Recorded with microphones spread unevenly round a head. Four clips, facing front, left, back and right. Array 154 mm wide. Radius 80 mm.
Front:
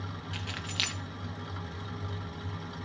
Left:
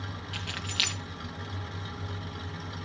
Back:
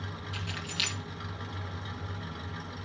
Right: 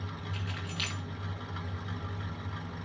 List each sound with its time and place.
0.3 s keys jangling: 60° left, 1.4 m